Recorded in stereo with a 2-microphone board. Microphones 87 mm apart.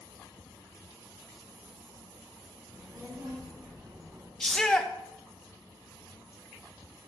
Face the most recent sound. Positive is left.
turn(degrees=5)  # may be behind; listen again after turning